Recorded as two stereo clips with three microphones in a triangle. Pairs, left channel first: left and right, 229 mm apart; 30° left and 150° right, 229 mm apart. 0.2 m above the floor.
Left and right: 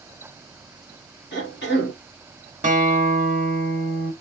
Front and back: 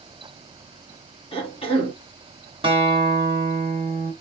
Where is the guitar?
100° right, 1.4 m.